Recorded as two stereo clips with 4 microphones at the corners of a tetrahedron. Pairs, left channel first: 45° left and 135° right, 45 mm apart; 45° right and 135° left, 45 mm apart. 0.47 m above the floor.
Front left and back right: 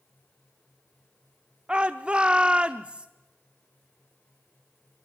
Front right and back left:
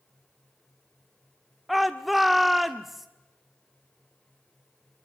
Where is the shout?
140° right, 0.7 m.